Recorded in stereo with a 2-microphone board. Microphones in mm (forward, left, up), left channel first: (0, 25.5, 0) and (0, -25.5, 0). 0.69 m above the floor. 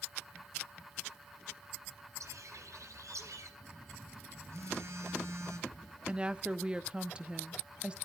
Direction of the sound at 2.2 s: 80° right.